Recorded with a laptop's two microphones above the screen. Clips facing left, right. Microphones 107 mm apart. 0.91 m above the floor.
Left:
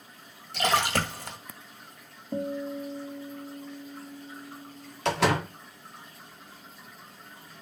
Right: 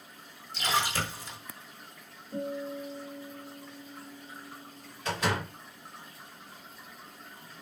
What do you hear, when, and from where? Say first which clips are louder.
0.5 s a splash: left 5 dB; 70° left (ahead or behind), 1.6 m
2.3 s a guitar: left 3 dB; 60° left (ahead or behind), 1.9 m
5.0 s a door slam: left 6 dB; 75° left (ahead or behind), 1.7 m